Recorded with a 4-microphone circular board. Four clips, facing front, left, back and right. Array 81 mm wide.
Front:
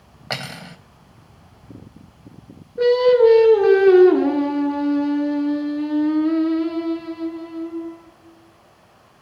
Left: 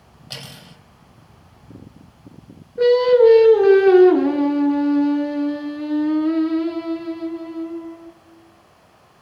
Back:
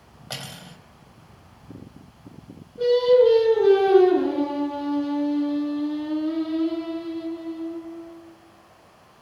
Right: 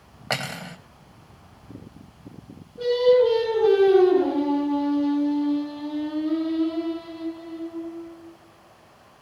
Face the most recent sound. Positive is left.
turn(degrees=45)